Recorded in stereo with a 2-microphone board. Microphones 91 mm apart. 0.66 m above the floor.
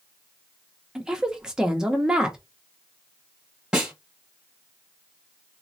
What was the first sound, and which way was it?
A woman speaking, 10° right (ahead or behind).